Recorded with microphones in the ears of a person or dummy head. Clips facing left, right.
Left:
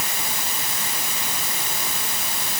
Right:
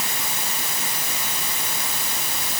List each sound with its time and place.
Only background noise.